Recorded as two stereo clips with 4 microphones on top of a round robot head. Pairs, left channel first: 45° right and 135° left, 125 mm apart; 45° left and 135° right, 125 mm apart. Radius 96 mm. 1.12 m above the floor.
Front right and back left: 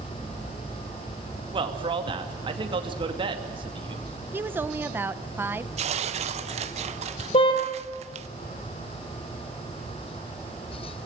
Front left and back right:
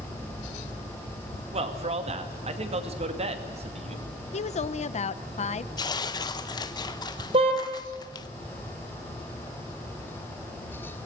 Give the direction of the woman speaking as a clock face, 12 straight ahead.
10 o'clock.